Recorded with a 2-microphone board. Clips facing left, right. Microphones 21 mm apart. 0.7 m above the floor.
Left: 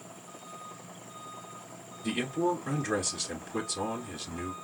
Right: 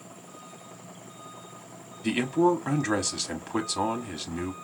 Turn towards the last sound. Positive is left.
turn(degrees=-60)  # may be behind; listen again after turning